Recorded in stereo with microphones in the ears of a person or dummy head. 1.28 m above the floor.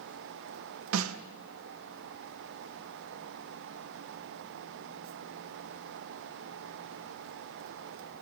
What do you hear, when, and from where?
0.9 s a snare drum: 80° right, 1.0 m